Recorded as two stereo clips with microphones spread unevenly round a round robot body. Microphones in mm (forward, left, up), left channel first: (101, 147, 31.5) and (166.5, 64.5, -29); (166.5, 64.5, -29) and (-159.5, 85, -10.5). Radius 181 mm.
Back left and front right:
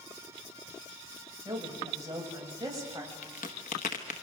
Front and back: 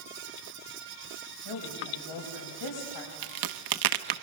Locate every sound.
1.4 s a woman speaking: straight ahead, 5.5 m; by 3.1 s 5° left, 7.5 m
3.2 s a crack: straight behind, 0.9 m